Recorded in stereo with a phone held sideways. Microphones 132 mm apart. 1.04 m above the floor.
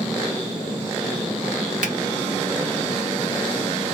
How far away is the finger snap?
About 1.3 m.